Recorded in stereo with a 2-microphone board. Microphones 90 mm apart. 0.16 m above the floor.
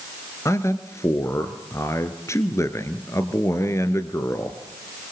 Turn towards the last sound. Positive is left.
turn(degrees=30)  # may be behind; listen again after turning